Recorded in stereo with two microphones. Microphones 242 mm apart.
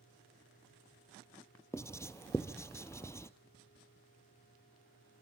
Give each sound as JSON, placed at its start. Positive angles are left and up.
{"t": 1.7, "sound": "writing", "side_deg": 10, "distance_m": 0.8}